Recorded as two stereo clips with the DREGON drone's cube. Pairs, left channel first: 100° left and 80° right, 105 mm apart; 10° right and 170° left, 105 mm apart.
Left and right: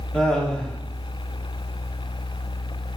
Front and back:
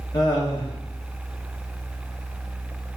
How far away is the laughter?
About 1.6 m.